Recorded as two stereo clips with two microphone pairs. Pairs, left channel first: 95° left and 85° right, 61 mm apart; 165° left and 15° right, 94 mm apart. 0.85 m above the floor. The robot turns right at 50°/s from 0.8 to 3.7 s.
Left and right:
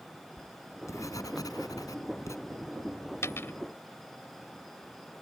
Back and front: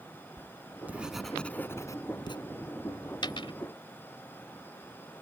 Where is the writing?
55° left; by 2.4 s 130° left.